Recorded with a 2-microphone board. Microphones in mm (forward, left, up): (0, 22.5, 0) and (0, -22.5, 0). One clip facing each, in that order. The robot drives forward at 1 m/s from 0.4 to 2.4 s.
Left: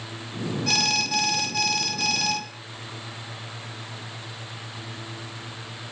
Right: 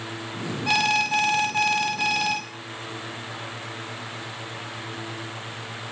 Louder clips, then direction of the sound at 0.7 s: Right 5 dB; 20° right (ahead or behind).